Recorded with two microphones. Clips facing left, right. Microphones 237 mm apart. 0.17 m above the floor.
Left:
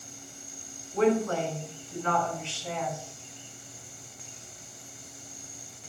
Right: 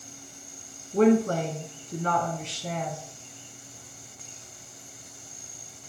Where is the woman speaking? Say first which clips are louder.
Right 4 dB; 40° right (ahead or behind), 1.3 m.